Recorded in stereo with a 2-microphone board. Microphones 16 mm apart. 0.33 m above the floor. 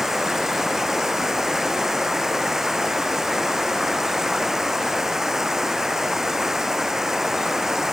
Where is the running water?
30° right (ahead or behind).